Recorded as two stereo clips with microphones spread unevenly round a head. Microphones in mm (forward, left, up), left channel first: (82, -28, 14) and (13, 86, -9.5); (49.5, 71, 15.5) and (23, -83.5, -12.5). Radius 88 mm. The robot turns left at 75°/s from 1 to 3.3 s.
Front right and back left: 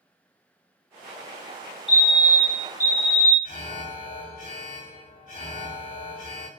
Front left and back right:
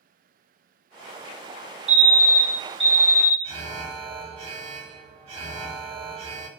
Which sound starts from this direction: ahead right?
An alarm, at 3.4 s.